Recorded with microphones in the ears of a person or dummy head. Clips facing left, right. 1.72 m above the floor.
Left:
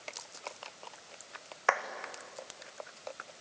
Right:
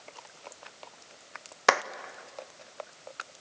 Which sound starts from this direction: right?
A clap, at 1.7 s.